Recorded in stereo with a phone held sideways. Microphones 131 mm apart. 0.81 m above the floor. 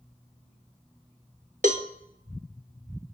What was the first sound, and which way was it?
A cowbell, 70° right (ahead or behind).